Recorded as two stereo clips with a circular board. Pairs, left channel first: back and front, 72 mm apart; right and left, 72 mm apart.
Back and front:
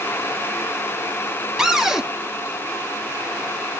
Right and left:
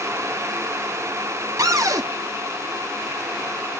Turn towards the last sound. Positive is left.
turn(degrees=80)